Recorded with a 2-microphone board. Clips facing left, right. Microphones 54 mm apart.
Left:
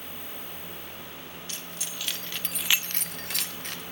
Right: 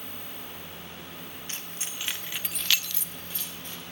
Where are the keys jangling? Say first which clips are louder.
Right 1 dB; 35° right (ahead or behind), 1.7 m; by 3.8 s 70° left (ahead or behind), 1.3 m.